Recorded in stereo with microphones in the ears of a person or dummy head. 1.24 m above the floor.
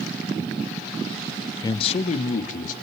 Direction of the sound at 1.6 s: 20° left (ahead or behind).